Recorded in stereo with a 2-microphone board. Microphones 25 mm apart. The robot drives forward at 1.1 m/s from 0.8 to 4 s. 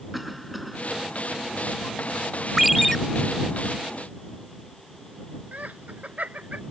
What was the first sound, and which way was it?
A cough, centre (ahead or behind).